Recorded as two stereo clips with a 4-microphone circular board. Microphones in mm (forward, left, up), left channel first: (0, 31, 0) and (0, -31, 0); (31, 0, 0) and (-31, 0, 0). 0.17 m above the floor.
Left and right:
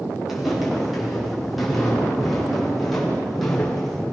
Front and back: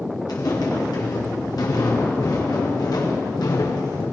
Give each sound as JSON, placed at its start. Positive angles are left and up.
{"t": 0.3, "sound": "footsteps", "azimuth_deg": -5, "distance_m": 9.5}